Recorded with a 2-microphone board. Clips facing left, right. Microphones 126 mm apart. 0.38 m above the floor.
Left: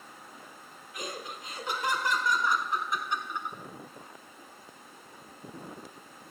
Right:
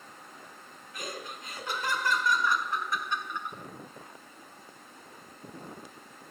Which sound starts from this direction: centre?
Laughter, at 0.9 s.